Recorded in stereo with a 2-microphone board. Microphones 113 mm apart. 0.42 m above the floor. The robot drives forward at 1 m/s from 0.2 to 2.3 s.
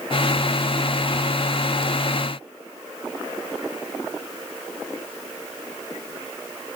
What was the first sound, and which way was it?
Only background noise.